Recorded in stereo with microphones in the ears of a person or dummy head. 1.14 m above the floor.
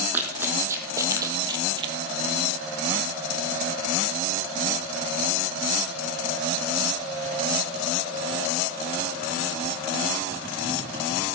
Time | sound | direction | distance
0.1 | running footsteps | 15° right (ahead or behind) | 1.9 m